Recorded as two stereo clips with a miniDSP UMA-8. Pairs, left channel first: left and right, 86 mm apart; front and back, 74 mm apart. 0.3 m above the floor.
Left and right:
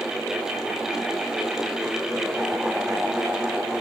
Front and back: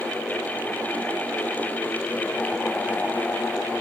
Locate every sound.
Only background noise.